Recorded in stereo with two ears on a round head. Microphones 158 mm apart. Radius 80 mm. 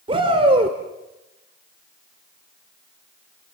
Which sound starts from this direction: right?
A shout, at 0.1 s.